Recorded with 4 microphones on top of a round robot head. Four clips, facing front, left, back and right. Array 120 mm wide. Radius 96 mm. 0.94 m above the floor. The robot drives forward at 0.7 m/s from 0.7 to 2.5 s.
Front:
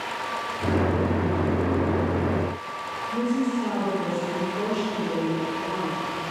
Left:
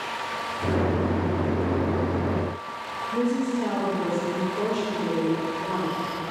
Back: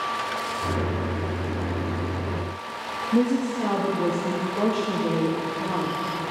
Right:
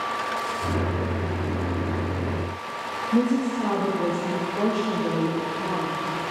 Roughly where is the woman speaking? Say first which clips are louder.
Right 2 dB, back 3 dB; behind right.